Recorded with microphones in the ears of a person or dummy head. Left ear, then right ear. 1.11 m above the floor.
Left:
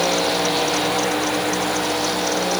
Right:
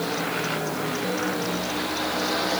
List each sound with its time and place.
Only background noise.